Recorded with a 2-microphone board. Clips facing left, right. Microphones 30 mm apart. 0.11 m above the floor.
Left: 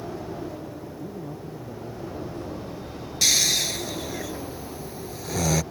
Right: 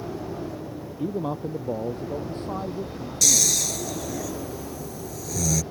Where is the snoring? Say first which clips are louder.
Left 1 dB; 35° left (ahead or behind).